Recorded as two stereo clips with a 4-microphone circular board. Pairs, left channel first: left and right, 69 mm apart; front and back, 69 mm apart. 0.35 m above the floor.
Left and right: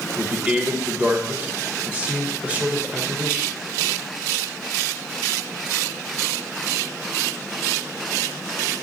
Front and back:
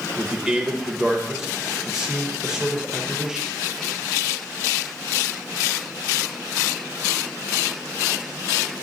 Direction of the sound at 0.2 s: 115° right.